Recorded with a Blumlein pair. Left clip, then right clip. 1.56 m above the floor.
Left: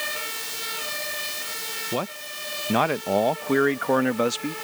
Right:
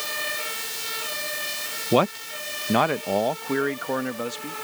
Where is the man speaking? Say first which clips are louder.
Right 13 dB; 25° right; by 4.5 s 25° left.